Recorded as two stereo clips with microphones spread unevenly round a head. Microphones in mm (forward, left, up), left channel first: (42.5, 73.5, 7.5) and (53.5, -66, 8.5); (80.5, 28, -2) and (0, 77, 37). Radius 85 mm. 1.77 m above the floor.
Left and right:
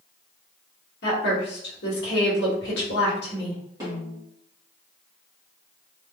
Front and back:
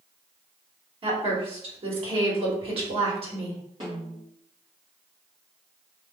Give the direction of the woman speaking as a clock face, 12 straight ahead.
8 o'clock.